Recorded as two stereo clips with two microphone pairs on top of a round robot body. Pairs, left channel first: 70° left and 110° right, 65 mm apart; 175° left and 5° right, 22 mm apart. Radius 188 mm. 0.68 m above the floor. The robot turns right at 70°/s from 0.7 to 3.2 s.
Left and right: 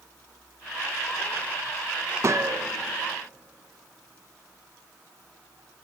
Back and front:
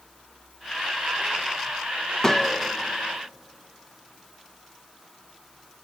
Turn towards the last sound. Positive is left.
turn(degrees=-65)